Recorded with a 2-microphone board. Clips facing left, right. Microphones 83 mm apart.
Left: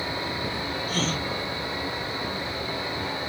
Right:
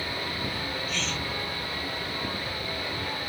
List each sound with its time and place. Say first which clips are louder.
0.9 s a gasp: left 5 dB; 45° left (ahead or behind)